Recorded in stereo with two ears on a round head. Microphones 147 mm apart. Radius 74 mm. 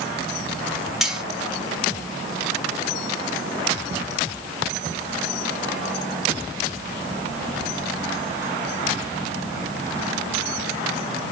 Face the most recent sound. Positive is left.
turn(degrees=-5)  # may be behind; listen again after turning